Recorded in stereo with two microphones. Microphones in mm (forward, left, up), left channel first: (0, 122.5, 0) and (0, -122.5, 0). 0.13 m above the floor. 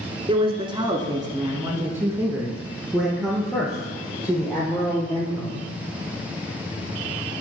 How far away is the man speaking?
About 1.1 m.